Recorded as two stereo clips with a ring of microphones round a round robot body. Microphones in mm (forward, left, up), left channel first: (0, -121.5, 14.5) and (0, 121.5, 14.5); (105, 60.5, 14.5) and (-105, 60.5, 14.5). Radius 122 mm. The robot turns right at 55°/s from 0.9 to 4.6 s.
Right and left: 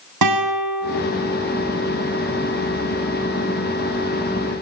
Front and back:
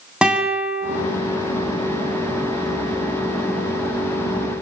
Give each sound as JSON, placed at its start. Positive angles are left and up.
{"t": 0.2, "sound": "a guitar", "azimuth_deg": 95, "distance_m": 8.0}